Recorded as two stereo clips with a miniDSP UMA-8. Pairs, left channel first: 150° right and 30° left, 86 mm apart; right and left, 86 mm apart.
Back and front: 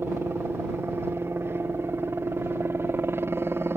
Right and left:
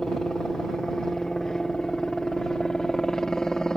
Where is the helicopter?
10° right.